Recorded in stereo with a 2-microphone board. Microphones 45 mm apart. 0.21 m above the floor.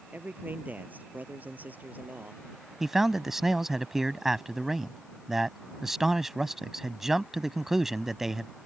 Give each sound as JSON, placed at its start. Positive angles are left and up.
{"t": 0.1, "sound": "a man speaking", "side_deg": -40}
{"t": 2.8, "sound": "a man speaking", "side_deg": -10}